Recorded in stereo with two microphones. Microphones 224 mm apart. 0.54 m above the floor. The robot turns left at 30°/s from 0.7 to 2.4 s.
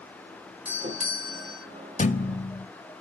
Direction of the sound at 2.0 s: 35° left (ahead or behind).